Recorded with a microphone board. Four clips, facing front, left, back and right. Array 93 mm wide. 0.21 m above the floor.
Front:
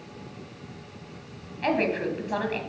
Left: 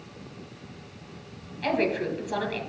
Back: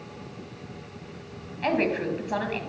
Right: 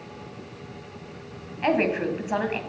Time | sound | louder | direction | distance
1.6 | a woman speaking | right 3 dB, even | 95° right | 1.6 m